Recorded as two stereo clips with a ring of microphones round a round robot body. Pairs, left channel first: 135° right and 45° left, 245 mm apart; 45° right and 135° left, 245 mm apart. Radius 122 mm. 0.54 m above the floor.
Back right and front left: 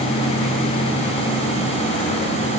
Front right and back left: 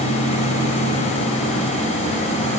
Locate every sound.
Only background noise.